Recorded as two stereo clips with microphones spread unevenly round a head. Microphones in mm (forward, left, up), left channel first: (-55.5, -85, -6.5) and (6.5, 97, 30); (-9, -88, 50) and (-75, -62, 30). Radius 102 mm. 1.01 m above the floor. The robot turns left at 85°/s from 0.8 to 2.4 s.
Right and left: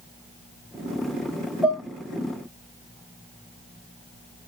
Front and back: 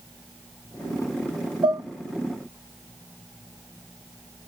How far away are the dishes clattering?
About 3.5 m.